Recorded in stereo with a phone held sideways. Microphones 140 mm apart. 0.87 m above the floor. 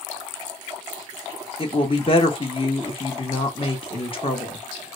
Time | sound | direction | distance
1.6 | a woman speaking | 40° left (ahead or behind) | 1.1 m